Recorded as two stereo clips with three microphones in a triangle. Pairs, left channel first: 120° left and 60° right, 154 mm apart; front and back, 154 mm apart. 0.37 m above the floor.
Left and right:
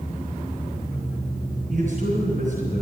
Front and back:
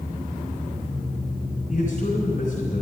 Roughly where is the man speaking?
Ahead right.